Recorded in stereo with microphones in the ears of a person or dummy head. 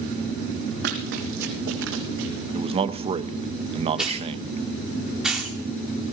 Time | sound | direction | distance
0.8 | running footsteps | 60° right (ahead or behind) | 3 m
2.5 | a man speaking | 35° right (ahead or behind) | 0.6 m
4.0 | a hiss | 5° right (ahead or behind) | 2 m